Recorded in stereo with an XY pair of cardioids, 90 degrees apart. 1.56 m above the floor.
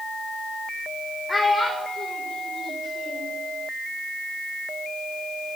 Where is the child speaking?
25° left, 1.1 m; by 3.4 s 60° left, 2.5 m.